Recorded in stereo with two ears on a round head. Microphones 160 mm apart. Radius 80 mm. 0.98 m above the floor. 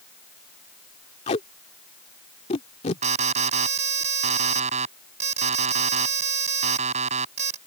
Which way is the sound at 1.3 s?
35° left (ahead or behind).